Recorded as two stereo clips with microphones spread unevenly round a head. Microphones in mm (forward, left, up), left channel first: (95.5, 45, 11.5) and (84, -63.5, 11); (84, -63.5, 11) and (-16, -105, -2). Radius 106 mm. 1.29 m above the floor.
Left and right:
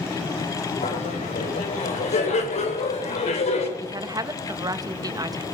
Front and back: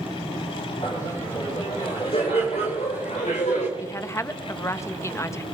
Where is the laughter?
95° left, 5.5 m; by 3.7 s 75° left, 4 m.